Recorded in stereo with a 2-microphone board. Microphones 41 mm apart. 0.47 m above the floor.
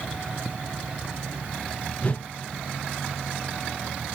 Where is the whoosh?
35° left (ahead or behind), 0.5 m.